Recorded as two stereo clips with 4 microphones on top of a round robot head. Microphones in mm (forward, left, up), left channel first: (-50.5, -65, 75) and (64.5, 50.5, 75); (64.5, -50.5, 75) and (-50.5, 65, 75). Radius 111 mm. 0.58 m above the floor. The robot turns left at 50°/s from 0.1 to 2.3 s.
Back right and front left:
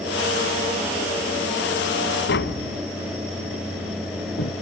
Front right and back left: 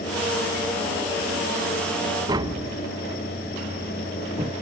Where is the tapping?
155° right.